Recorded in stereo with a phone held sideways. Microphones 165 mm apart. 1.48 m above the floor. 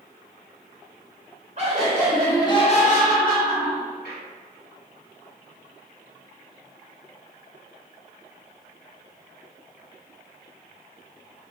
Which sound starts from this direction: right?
Laughter, at 1.6 s.